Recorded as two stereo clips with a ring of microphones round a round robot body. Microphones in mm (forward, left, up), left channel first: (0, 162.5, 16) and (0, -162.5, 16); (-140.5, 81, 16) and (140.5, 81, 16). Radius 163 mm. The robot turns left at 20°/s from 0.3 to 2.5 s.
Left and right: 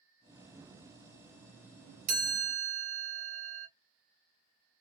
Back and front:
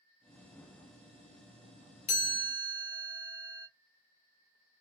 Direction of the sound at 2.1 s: 135° right.